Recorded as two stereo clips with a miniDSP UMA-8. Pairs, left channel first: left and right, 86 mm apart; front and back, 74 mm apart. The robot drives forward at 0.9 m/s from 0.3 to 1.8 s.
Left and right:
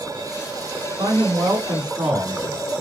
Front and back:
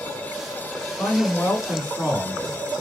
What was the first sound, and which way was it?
A man speaking, 55° right.